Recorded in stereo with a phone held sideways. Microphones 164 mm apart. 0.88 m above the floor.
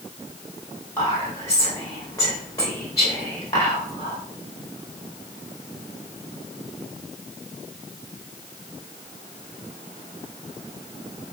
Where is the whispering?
20° left (ahead or behind), 0.7 m.